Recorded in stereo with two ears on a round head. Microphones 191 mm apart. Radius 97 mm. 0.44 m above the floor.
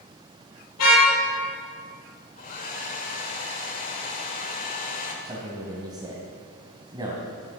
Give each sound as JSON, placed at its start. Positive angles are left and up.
{"t": 0.8, "sound": "a car horn", "side_deg": 85, "distance_m": 5.0}
{"t": 2.4, "sound": "a hair dryer", "side_deg": 40, "distance_m": 1.9}
{"t": 5.2, "sound": "a man speaking", "side_deg": -20, "distance_m": 2.5}